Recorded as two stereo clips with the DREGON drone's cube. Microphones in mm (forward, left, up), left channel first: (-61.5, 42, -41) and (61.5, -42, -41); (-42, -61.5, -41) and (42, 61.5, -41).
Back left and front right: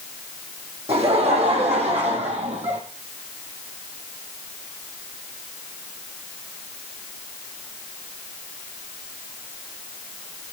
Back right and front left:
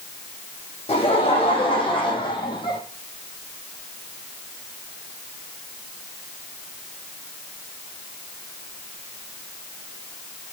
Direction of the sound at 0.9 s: 80° right.